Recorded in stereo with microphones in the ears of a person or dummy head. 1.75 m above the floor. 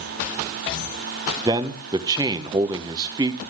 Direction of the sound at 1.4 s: 20° right (ahead or behind).